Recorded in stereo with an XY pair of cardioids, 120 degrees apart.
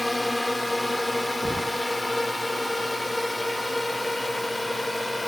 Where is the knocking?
15° right.